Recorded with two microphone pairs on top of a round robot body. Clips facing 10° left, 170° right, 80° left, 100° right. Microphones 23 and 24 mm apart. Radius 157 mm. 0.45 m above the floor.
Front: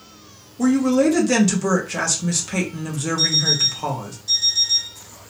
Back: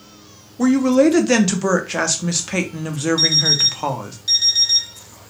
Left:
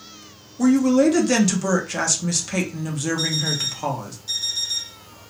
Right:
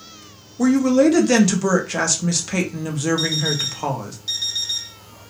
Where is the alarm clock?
155° right, 1.0 m.